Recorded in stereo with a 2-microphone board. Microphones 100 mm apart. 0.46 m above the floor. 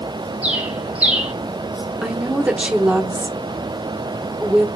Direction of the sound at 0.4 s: 10° right (ahead or behind).